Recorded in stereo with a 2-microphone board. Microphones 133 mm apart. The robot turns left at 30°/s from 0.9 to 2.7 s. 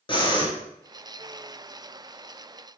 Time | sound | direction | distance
0.1 | breathing | 40° left (ahead or behind) | 0.7 m